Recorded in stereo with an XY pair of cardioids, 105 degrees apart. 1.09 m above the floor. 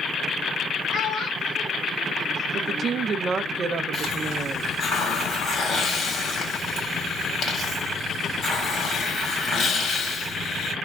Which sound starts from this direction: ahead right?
A woman speaking, at 2.5 s.